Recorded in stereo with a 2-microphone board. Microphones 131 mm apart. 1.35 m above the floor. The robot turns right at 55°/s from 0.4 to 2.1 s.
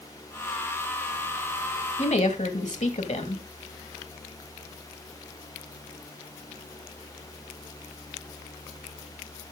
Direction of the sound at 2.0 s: 55° left (ahead or behind).